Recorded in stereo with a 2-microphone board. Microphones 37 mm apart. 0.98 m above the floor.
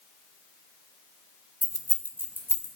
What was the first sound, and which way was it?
Keys jangling, 45° right (ahead or behind).